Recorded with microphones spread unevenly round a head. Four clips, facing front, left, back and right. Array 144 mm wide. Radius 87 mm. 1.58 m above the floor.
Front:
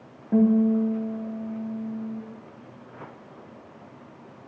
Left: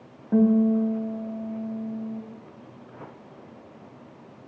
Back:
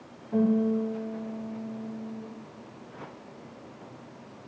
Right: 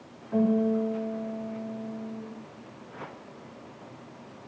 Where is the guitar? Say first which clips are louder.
Left 5 dB, front 5 dB; 60° left, 2.5 m.